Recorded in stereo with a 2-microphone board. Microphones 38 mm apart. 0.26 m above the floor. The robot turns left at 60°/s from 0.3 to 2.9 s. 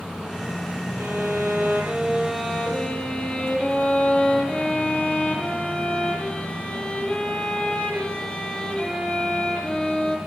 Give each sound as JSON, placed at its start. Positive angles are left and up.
{"t": 1.0, "sound": "a violin", "azimuth_deg": -90, "distance_m": 5.5}